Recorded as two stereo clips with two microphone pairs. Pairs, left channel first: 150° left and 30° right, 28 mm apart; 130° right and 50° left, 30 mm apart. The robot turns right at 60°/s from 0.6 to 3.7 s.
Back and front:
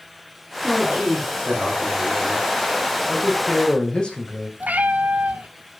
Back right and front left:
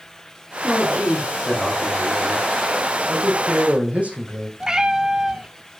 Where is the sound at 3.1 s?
55° left, 5.5 m; by 4.5 s 90° left, 5.5 m.